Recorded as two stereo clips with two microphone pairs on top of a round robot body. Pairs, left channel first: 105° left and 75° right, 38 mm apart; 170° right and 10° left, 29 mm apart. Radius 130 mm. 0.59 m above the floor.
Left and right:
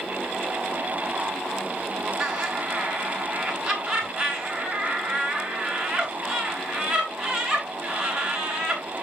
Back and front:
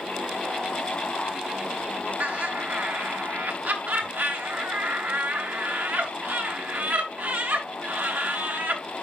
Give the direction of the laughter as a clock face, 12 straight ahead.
12 o'clock.